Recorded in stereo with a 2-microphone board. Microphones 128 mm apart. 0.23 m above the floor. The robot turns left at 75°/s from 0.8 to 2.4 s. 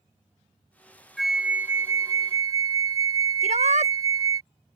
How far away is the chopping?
No chopping in this recording.